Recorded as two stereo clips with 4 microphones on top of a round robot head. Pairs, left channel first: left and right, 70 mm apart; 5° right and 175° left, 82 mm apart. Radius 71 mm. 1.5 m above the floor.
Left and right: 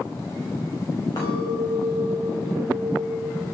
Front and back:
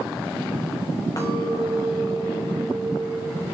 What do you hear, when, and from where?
1.2 s a clink: 40° left, 5.5 m